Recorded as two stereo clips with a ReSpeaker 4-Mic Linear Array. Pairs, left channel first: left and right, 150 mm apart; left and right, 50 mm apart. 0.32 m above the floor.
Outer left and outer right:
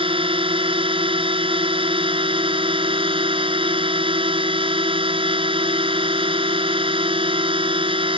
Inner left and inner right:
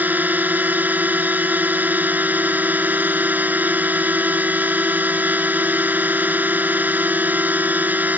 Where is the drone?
40° right (ahead or behind).